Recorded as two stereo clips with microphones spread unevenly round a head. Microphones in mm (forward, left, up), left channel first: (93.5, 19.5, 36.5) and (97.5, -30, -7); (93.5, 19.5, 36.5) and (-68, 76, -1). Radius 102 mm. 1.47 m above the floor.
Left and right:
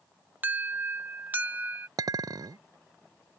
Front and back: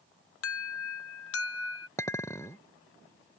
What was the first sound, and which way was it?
An alarm, 40° right.